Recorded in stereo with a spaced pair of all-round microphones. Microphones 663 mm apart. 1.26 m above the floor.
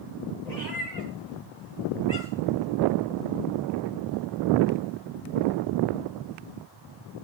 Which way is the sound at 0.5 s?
75° left (ahead or behind).